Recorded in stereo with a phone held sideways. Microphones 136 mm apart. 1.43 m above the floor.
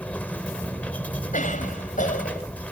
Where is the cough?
65° left (ahead or behind).